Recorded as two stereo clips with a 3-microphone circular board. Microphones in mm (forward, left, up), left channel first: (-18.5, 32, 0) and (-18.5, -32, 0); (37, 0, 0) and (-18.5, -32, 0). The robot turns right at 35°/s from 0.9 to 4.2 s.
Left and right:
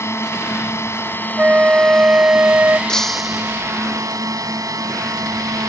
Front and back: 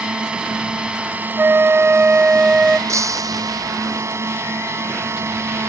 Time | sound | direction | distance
0.0 | a drone | 135° left | ?
1.4 | a flute | 135° right | ?
2.9 | breaking glass | 170° left | ?